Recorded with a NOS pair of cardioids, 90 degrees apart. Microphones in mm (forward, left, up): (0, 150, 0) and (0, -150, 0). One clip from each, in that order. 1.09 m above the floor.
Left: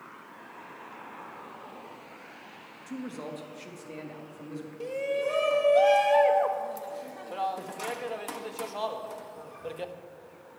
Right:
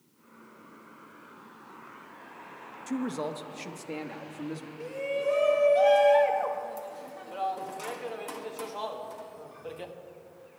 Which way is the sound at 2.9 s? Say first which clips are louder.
Right 6 dB; 40° right.